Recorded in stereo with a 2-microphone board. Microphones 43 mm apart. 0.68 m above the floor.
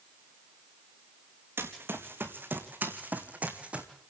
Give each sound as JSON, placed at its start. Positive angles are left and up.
{"t": 1.6, "sound": "running footsteps", "side_deg": -60, "distance_m": 3.5}